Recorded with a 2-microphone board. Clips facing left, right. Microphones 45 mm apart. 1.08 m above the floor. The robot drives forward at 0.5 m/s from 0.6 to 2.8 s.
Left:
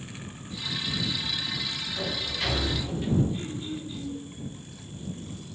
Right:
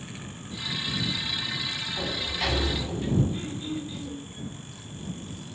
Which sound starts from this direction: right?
Throat clearing, at 3.3 s.